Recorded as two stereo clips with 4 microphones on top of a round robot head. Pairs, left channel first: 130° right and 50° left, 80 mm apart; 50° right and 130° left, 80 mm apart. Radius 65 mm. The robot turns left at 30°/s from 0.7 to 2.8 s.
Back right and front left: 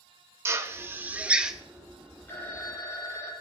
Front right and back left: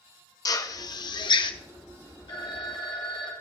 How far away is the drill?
About 0.9 m.